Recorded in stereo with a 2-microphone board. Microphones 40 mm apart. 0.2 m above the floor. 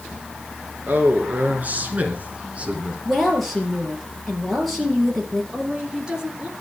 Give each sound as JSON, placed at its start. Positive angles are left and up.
{"t": 0.9, "sound": "a man speaking", "side_deg": -50, "distance_m": 3.0}
{"t": 3.0, "sound": "a woman speaking", "side_deg": 5, "distance_m": 4.5}
{"t": 5.5, "sound": "a woman speaking", "side_deg": -20, "distance_m": 3.0}